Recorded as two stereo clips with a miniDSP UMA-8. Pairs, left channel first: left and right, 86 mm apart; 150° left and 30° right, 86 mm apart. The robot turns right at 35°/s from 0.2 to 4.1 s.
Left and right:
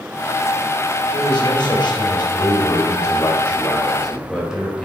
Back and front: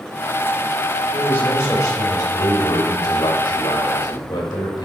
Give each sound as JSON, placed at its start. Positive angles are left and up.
{"t": 1.1, "sound": "a man speaking", "azimuth_deg": 75, "distance_m": 3.5}